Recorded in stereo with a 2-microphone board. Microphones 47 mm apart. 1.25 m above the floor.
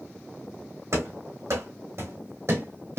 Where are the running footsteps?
70° right (ahead or behind), 3.5 m; by 3.0 s 60° right (ahead or behind), 2.5 m.